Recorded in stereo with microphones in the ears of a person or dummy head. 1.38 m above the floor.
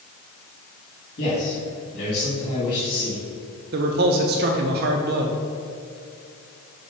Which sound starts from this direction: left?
A man speaking, at 1.2 s.